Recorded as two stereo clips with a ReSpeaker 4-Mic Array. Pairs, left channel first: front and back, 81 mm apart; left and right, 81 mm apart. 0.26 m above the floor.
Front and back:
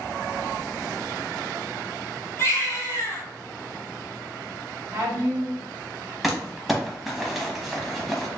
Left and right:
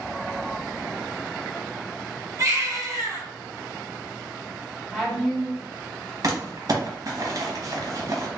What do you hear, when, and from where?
2.4 s a baby crying: 50° right, 1.7 m
4.9 s a woman speaking: straight behind, 1.3 m
6.2 s crumpling: 95° right, 1.0 m